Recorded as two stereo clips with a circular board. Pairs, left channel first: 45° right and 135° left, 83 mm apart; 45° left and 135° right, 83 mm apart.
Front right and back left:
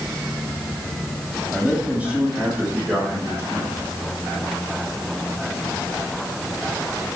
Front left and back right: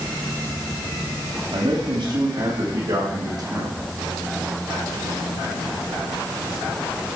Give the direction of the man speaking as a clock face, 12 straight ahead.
5 o'clock.